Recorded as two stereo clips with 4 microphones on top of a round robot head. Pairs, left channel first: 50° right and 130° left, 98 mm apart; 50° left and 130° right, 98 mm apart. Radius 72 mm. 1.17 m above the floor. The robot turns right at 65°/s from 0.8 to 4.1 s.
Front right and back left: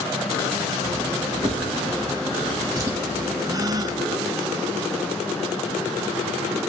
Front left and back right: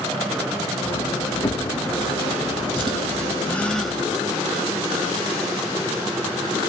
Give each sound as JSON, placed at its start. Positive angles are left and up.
{"t": 1.4, "sound": "a drawer", "azimuth_deg": 95, "distance_m": 0.8}
{"t": 3.4, "sound": "a gasp", "azimuth_deg": 105, "distance_m": 0.6}